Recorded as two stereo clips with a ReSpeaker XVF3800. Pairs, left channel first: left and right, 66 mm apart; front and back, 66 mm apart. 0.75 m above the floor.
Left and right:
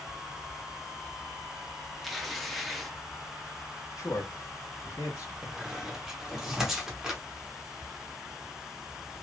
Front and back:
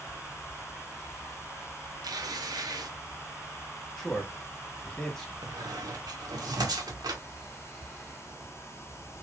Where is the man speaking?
80° left, 1.4 m.